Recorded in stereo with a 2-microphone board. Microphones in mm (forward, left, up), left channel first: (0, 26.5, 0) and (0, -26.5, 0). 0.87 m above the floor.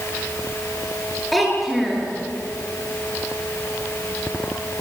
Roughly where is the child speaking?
Centre.